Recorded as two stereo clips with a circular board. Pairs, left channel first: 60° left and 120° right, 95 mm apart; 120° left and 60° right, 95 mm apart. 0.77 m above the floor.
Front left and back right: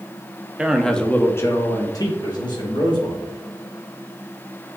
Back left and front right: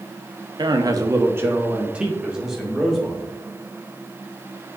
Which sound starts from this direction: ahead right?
A man speaking, at 0.6 s.